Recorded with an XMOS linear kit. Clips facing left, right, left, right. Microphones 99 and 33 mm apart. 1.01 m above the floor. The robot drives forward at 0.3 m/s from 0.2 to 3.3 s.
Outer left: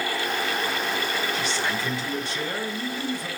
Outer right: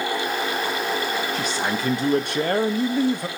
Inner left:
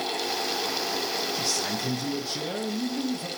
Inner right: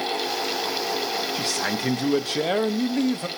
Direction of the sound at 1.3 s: 45° right (ahead or behind).